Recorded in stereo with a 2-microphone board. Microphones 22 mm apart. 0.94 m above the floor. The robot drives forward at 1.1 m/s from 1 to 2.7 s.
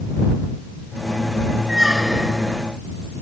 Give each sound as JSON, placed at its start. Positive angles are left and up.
{"t": 1.7, "sound": "a squeak", "side_deg": -10}